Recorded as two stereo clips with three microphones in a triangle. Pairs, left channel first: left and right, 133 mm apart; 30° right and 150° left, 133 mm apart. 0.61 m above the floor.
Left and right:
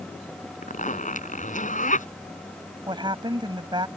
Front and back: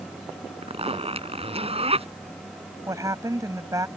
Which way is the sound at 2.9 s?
145° right.